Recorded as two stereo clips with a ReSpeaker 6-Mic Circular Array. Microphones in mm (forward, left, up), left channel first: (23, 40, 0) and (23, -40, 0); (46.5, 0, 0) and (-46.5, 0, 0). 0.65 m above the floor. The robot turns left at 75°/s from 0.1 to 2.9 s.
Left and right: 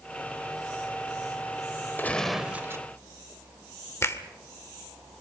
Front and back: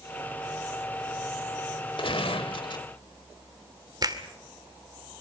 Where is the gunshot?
25° left, 1.4 m; by 2.9 s 40° right, 1.4 m.